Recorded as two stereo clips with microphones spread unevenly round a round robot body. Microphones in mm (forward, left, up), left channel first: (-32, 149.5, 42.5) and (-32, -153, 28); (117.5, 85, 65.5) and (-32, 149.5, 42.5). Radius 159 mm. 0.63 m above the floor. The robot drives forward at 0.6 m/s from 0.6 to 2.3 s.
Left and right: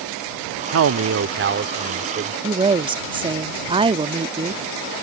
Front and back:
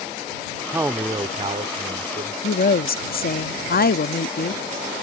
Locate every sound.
0.7 s a man speaking: 125° right; by 2.3 s 150° right
2.4 s a woman speaking: 20° right